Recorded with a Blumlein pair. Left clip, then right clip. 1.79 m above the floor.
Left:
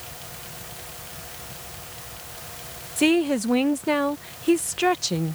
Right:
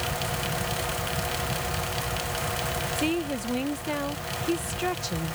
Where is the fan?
30° right.